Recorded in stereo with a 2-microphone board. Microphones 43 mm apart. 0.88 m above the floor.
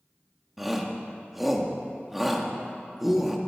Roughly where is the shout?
Centre.